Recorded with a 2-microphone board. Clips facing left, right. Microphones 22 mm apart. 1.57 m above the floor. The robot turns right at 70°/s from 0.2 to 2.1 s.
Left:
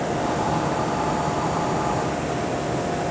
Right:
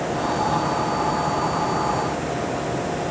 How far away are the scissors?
I don't hear scissors.